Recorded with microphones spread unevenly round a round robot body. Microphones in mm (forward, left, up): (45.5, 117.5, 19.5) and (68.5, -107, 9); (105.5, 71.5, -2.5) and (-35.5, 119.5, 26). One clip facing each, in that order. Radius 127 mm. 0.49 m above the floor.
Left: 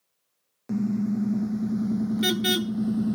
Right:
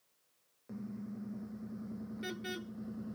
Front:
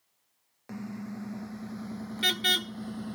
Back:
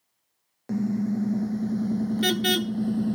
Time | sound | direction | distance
0.7 | a car horn | 125° left | ?